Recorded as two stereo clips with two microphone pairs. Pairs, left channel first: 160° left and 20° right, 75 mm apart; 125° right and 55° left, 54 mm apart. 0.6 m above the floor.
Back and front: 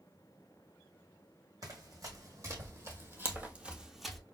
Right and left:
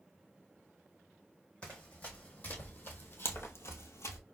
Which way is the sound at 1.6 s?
50° right.